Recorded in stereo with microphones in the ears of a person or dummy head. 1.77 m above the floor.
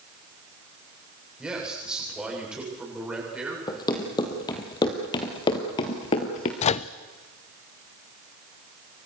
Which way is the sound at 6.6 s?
30° left (ahead or behind).